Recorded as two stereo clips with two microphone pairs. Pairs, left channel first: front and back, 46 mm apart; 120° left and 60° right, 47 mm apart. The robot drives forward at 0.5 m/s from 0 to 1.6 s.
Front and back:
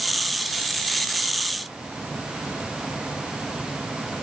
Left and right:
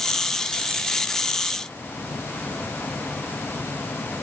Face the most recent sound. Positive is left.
No sound to turn to.